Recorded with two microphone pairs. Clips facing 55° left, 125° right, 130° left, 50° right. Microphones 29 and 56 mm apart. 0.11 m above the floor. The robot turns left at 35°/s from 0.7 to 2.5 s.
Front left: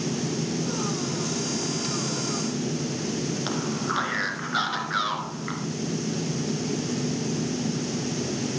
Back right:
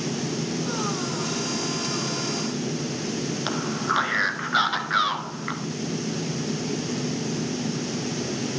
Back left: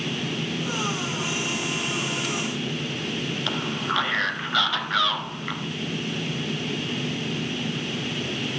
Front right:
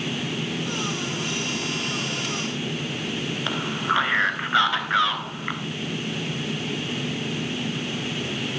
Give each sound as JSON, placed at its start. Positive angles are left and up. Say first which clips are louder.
{"t": 3.5, "sound": "a man speaking", "louder": "back right 5 dB, front right 4 dB", "azimuth_deg": -85, "distance_m": 1.3}